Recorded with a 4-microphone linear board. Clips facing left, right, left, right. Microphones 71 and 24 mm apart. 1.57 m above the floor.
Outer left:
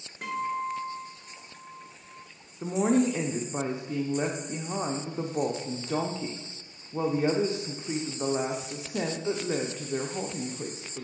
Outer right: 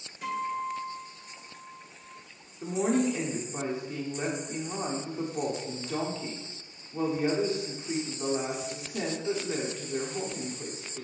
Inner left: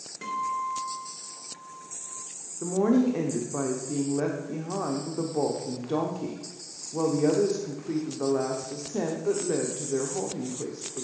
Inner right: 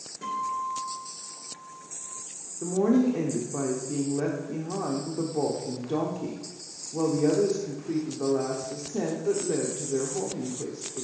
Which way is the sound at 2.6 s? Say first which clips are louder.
Outer left 2 dB, even; 25° left (ahead or behind).